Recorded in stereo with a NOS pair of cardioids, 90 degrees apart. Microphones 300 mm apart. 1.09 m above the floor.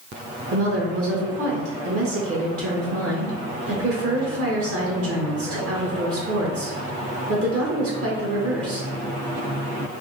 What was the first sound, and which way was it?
A woman speaking, 50° right.